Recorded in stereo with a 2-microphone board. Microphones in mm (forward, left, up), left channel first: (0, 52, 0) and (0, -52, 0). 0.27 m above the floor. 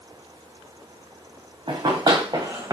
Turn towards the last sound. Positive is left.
turn(degrees=-30)  # may be behind; listen again after turning